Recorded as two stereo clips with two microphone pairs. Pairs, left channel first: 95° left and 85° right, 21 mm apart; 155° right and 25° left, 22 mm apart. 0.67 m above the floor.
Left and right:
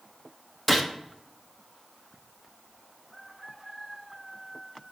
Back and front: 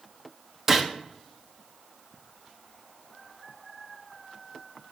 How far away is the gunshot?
About 0.9 m.